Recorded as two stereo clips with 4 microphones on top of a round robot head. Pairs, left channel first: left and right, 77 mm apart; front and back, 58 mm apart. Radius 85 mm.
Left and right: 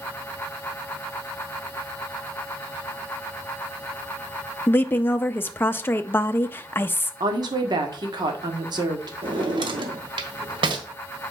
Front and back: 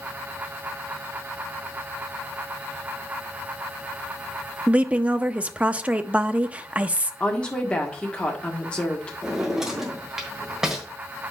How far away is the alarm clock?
I don't hear an alarm clock.